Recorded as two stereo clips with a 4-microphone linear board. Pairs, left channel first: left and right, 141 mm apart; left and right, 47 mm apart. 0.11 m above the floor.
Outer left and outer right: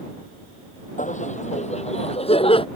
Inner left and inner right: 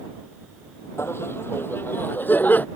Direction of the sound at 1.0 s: 60° left (ahead or behind).